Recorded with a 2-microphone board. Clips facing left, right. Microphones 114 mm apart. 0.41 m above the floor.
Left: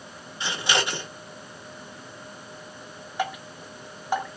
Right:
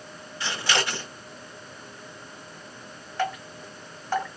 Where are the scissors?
20° left (ahead or behind), 1.3 m.